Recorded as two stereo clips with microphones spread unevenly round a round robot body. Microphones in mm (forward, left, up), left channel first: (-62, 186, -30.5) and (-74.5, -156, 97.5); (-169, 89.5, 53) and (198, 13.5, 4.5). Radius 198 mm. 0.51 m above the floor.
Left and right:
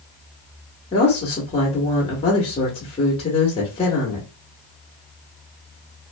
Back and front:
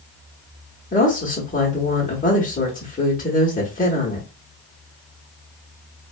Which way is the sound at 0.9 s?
100° left.